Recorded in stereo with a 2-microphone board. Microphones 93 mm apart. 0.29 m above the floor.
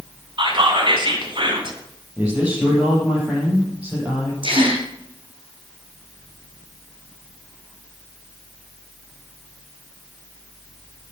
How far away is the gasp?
About 3 m.